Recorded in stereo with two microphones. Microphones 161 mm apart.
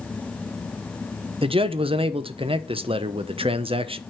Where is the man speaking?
35° right (ahead or behind), 0.8 m.